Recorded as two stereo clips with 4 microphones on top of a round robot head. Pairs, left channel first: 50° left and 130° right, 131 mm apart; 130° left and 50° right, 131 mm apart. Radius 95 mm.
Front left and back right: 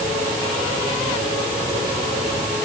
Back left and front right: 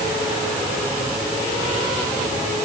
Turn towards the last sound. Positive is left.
No sound to turn to.